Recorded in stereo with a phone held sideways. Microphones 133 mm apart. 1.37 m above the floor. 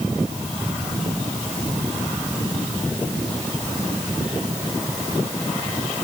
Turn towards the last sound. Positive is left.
No sound to turn to.